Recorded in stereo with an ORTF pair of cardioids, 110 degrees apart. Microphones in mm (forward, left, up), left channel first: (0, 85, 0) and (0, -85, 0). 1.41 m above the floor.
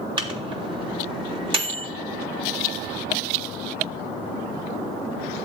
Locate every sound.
0.2 s a microwave: 30° right, 3.5 m